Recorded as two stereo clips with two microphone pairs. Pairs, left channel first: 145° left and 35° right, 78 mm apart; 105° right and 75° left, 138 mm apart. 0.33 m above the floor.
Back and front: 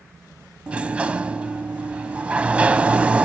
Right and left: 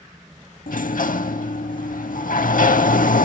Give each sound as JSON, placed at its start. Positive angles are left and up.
{"t": 0.7, "sound": "a sliding door", "azimuth_deg": -105, "distance_m": 0.5}